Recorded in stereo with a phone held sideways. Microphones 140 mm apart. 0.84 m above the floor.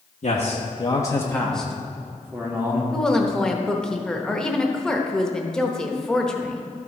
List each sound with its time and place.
0.2 s a man speaking: 60° left (ahead or behind), 1.1 m; by 2.8 s 15° right (ahead or behind), 2.5 m
2.9 s a woman speaking: 5° left (ahead or behind), 0.9 m